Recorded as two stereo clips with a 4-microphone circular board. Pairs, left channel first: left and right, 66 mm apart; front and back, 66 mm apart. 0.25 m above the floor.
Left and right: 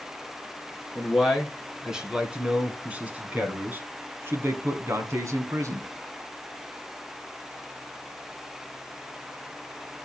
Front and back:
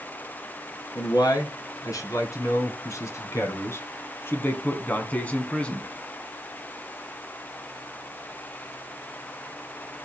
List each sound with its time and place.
0.9 s a man speaking: 5° right, 2.5 m; by 5.9 s 75° right, 2 m